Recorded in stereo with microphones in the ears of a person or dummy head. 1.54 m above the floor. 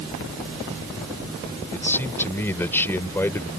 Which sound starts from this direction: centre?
A man speaking, at 1.7 s.